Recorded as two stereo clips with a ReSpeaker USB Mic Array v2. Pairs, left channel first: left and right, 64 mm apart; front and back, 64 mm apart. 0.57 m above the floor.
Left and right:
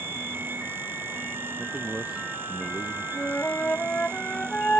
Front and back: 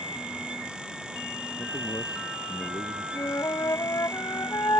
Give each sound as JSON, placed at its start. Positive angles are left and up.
{"t": 1.6, "sound": "a man speaking", "azimuth_deg": -15}
{"t": 3.1, "sound": "a flute", "azimuth_deg": 25}